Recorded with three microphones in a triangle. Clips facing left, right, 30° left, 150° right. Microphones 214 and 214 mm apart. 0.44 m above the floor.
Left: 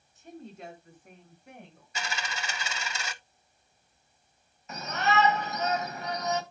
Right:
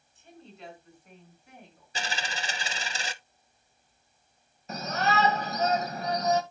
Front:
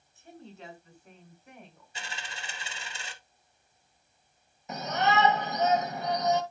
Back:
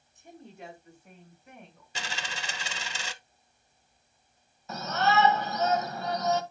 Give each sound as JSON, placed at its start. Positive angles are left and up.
{"t": 0.1, "sound": "a woman speaking", "azimuth_deg": 135, "distance_m": 5.5}
{"t": 1.9, "sound": "a dropped coin", "azimuth_deg": -150, "distance_m": 0.7}
{"t": 4.7, "sound": "a shout", "azimuth_deg": -40, "distance_m": 2.0}